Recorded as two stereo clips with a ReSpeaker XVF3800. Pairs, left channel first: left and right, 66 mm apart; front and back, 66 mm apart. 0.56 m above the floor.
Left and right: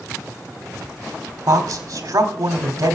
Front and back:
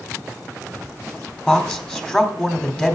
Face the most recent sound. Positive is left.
turn(degrees=-70)